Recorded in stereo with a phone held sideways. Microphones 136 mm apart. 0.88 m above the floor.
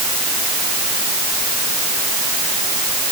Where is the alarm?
No alarm in this recording.